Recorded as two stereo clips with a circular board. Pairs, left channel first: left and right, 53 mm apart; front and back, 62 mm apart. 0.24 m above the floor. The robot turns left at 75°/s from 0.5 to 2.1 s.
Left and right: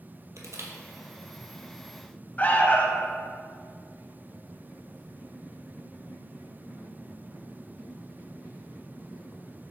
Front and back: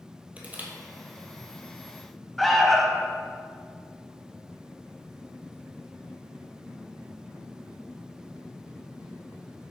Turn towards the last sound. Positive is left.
turn(degrees=85)